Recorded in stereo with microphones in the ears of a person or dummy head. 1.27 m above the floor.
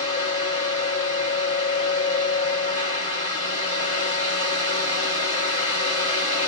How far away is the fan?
About 1.3 m.